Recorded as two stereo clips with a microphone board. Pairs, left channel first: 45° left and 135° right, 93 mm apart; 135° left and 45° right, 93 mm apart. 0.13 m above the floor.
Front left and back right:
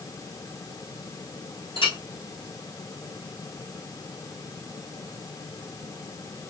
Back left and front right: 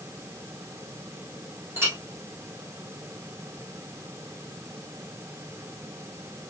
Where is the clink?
25° left, 3.5 m.